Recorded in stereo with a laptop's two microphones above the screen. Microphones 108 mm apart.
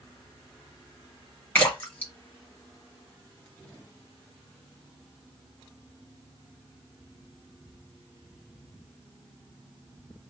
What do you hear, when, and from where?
1.6 s a splash: 20° left (ahead or behind), 1.7 m